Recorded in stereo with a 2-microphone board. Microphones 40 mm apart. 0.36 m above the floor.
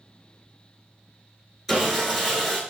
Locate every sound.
1.7 s sawing: 5° right (ahead or behind), 1.1 m